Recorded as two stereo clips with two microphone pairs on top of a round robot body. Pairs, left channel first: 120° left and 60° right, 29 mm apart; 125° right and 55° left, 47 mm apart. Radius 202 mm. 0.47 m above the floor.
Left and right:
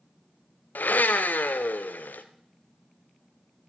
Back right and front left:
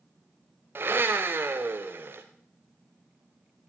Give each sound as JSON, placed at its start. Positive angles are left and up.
{"t": 0.8, "sound": "a blender", "azimuth_deg": 105, "distance_m": 0.6}